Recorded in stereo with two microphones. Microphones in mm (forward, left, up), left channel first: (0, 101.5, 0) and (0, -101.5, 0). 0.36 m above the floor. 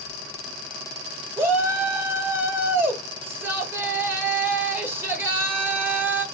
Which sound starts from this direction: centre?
A shout, at 1.4 s.